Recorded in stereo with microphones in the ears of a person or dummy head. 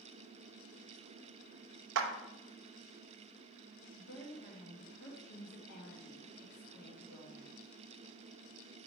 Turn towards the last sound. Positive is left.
turn(degrees=55)  # may be behind; listen again after turning